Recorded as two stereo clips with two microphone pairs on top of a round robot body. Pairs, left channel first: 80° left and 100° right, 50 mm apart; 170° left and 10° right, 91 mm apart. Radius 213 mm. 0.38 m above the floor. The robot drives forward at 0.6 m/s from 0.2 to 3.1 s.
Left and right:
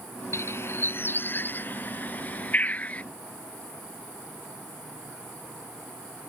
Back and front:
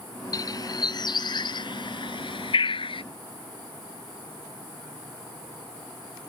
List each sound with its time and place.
0.3 s a bird: 120° left; by 3.0 s 145° left